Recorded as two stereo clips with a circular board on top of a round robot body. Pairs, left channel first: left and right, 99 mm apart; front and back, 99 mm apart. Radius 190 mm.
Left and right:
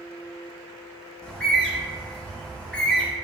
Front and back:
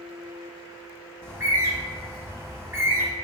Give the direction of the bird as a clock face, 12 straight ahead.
7 o'clock.